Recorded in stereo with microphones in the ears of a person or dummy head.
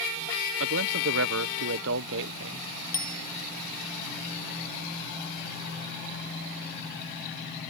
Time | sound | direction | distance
0.6 | a man speaking | 70° right (ahead or behind) | ?
2.9 | a bicycle bell | 15° left (ahead or behind) | ?